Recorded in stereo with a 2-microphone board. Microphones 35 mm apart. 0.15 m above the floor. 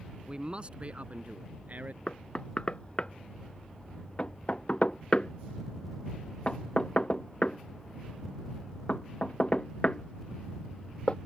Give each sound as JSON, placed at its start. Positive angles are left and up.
{"t": 0.3, "sound": "a man speaking", "side_deg": -25}
{"t": 2.1, "sound": "knocking", "side_deg": 35}